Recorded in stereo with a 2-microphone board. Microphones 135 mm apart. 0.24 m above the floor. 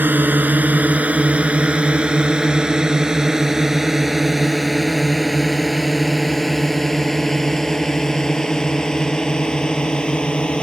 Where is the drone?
15° right (ahead or behind); by 10.6 s 10° left (ahead or behind).